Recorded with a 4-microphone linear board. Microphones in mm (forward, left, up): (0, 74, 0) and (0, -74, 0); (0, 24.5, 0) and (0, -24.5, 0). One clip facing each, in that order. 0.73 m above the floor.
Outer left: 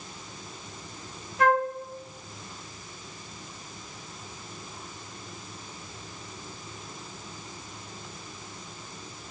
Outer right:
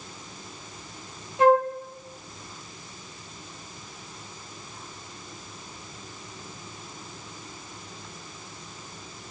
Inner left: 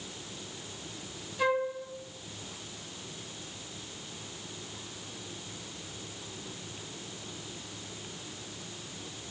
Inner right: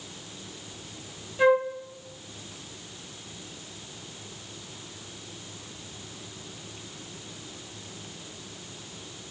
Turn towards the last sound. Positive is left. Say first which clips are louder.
# outer right 5 dB, inner right 7 dB
turn(degrees=-30)  # may be behind; listen again after turning